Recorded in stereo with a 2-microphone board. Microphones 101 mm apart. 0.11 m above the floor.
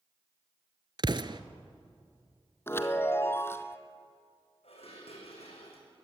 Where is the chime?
25° left (ahead or behind), 1.0 m.